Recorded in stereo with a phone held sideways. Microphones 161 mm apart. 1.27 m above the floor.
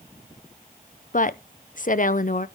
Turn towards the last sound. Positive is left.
turn(degrees=55)  # may be behind; listen again after turning